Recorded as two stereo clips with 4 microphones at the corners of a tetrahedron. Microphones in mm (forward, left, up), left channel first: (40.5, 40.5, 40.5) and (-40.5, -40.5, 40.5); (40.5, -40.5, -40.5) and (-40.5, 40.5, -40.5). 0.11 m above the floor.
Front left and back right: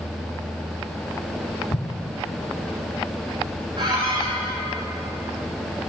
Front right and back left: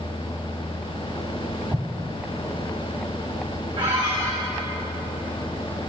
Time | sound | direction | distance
1.7 | an explosion | 70° left | 0.6 m
3.8 | a squeak | 175° left | 1.9 m